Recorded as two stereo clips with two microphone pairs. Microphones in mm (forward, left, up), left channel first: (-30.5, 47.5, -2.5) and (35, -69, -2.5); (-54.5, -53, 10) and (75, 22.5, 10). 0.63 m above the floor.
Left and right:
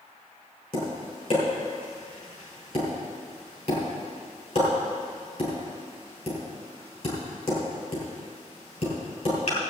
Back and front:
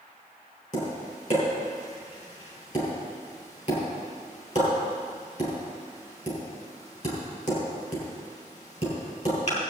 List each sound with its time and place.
0.7 s tapping: 170° left, 5 m